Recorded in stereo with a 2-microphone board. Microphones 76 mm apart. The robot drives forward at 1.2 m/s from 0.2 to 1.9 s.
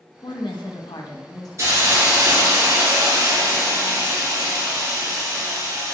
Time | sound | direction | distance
0.2 | a woman speaking | 60° left (ahead or behind) | 1.2 m
1.6 | a hiss | 35° right (ahead or behind) | 3 m